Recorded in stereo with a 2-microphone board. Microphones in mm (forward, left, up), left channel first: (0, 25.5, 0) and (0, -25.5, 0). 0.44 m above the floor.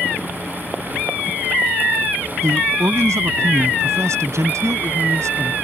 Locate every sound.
2.4 s a man speaking: 70° right (ahead or behind)